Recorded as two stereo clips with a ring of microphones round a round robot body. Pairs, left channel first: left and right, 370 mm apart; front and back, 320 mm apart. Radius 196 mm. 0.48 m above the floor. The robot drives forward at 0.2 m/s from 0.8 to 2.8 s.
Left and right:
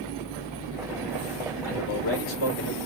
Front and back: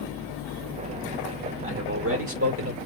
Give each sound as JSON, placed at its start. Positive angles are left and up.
{"t": 1.6, "sound": "a man speaking", "azimuth_deg": 135, "distance_m": 1.8}